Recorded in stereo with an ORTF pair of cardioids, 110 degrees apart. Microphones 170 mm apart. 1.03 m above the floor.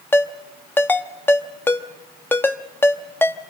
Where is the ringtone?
15° left, 1.0 m.